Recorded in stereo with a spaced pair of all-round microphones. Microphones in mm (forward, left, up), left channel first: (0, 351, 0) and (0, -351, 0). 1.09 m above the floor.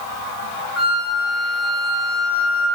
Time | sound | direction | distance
0.8 | a flute | 45° left (ahead or behind) | 2 m